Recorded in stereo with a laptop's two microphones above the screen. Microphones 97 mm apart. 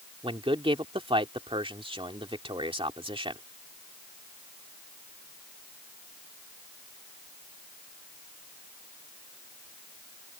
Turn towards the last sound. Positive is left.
turn(degrees=-60)  # may be behind; listen again after turning